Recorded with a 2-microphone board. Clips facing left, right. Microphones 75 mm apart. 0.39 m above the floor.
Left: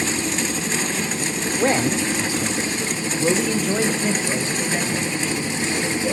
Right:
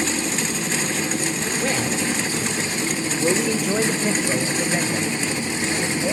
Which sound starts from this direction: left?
A man speaking, at 1.6 s.